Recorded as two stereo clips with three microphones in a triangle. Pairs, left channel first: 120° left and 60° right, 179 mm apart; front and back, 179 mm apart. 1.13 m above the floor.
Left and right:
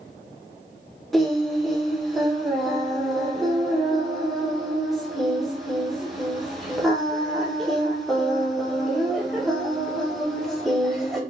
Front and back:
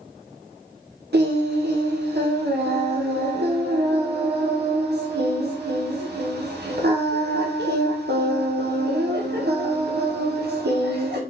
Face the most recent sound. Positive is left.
turn(degrees=-150)